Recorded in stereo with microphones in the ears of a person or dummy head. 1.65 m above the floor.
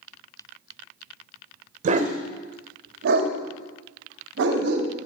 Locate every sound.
1.8 s a dog barking: 40° right (ahead or behind), 2.5 m; by 4.9 s 65° right (ahead or behind), 3.5 m